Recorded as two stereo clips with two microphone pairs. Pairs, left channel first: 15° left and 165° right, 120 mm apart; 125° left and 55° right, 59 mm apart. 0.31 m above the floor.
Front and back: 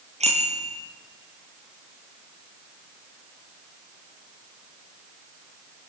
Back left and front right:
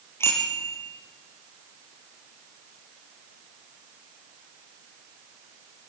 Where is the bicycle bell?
170° left, 5.5 m.